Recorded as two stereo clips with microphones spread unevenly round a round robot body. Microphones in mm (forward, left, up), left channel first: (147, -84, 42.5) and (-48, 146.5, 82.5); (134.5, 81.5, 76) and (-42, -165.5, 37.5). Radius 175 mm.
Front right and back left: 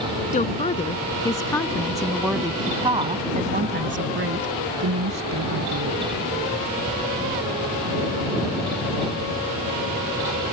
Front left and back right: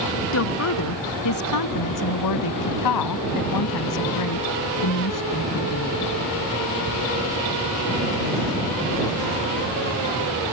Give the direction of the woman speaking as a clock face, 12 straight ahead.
11 o'clock.